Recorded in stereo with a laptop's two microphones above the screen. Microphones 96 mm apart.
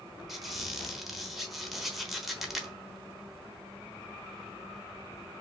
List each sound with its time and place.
0.3 s a squeak: centre (ahead or behind), 0.9 m